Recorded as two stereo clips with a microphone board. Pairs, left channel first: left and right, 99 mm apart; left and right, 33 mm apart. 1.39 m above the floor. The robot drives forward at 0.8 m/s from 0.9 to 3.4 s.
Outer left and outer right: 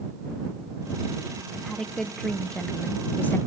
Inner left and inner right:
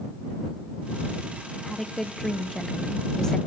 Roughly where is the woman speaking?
Centre.